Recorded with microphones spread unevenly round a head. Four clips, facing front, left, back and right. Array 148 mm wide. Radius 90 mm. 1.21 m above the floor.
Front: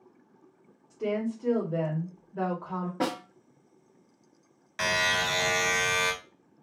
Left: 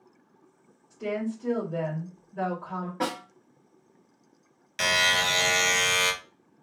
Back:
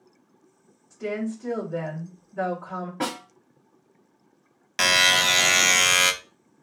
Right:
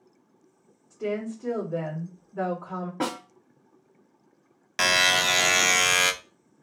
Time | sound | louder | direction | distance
0.9 | a woman speaking | right 1 dB, even | 40° right | 2.5 m
3.0 | a snare drum | right 1 dB, even | 65° right | 2 m
4.8 | a buzzer | right 2 dB, back 5 dB | 150° right | 0.8 m